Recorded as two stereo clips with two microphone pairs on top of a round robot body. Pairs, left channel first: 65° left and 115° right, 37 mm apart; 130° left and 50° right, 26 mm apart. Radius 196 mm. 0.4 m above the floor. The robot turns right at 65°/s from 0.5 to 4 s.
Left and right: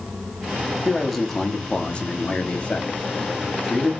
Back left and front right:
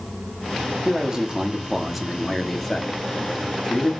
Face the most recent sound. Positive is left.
turn(degrees=155)